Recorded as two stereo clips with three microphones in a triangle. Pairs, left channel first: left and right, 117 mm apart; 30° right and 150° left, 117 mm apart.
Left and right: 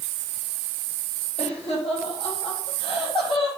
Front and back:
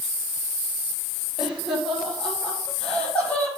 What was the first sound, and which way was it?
Laughter, 65° left.